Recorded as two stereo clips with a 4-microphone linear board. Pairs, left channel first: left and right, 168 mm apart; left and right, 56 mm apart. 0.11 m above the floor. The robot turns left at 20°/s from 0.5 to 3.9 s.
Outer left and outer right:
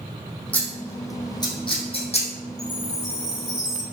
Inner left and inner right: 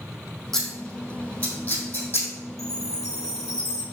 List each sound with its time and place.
0.5 s scissors: 10° left (ahead or behind), 2.5 m; by 2.3 s 40° left (ahead or behind), 2.5 m
2.6 s a chime: 85° left, 1.8 m; by 3.8 s 65° left (ahead or behind), 1.8 m